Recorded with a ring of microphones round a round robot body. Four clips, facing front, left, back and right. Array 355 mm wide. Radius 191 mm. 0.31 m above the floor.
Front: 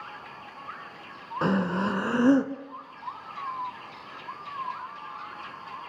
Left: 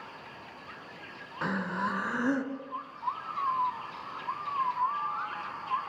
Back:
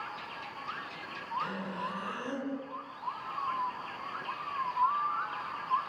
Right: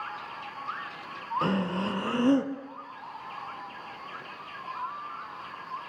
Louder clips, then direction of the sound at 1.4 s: Right 2 dB, front 10 dB; 20° right.